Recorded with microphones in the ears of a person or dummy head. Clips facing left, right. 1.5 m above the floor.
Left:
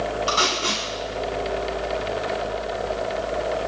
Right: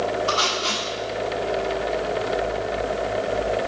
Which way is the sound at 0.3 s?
45° left (ahead or behind).